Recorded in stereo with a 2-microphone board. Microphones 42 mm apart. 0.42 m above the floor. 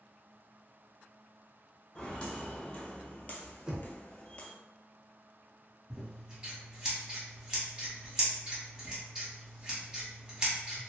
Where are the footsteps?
25° left (ahead or behind), 1.1 m.